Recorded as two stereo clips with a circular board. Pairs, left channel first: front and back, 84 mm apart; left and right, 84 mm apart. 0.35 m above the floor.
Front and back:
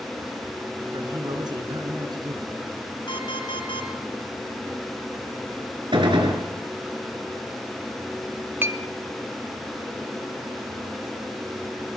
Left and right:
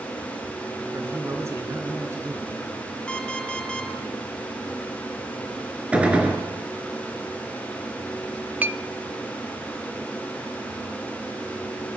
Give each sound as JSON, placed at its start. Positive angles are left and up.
{"t": 0.9, "sound": "a man speaking", "azimuth_deg": -150, "distance_m": 4.5}
{"t": 3.1, "sound": "an alarm clock", "azimuth_deg": 10, "distance_m": 2.5}
{"t": 5.9, "sound": "a gunshot", "azimuth_deg": -165, "distance_m": 4.0}
{"t": 8.6, "sound": "a clink", "azimuth_deg": -145, "distance_m": 0.6}